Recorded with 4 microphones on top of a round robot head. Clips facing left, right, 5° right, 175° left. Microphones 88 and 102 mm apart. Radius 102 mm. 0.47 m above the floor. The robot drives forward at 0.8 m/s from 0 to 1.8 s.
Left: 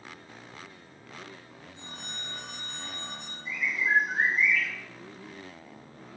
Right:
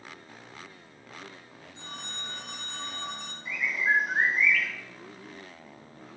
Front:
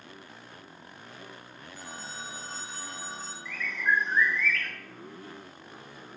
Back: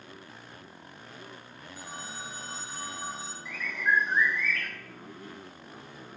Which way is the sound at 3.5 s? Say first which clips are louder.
Right 1 dB, even; 110° right.